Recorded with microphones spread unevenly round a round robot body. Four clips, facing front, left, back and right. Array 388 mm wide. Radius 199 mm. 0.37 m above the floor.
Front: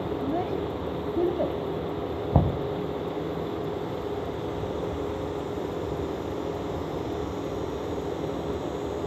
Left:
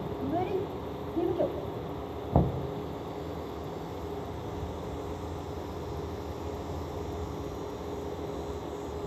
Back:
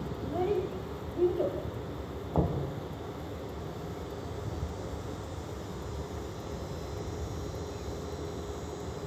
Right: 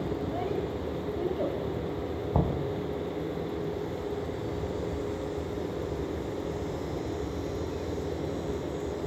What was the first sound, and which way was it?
A child speaking, 35° left.